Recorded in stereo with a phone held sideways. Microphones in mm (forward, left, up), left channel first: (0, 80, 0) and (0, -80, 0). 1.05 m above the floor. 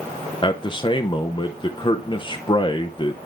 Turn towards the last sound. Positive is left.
turn(degrees=30)  # may be behind; listen again after turning